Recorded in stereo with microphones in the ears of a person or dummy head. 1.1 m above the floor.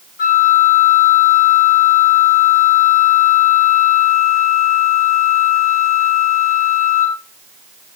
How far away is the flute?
About 1.2 m.